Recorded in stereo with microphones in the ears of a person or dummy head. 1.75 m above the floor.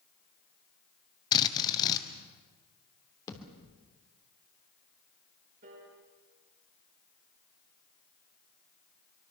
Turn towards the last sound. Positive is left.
turn(degrees=-50)  # may be behind; listen again after turning